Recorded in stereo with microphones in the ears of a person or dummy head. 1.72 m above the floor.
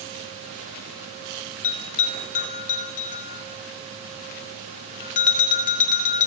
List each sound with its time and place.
1.6 s a bell: 35° left (ahead or behind), 1.1 m